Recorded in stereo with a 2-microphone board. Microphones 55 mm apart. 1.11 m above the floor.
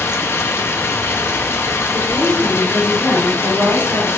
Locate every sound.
0.0 s running water: 50° left (ahead or behind), 0.8 m
1.9 s a woman speaking: 65° right (ahead or behind), 4 m